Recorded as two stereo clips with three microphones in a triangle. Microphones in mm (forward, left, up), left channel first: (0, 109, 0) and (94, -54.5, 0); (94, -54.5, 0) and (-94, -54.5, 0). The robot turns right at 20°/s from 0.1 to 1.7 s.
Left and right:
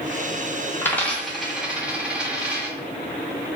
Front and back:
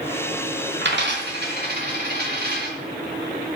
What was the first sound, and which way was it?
A dropped coin, 160° right.